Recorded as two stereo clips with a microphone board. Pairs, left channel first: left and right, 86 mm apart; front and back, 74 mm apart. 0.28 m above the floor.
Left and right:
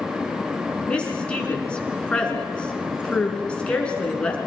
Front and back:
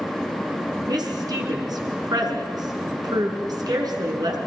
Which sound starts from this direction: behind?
A woman speaking, at 0.9 s.